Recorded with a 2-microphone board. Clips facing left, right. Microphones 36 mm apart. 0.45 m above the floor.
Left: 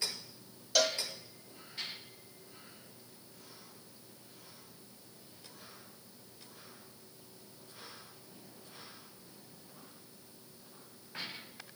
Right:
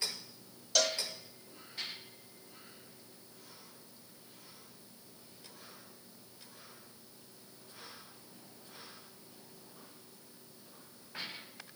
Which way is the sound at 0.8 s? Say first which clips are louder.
Left 1 dB; 5° left (ahead or behind).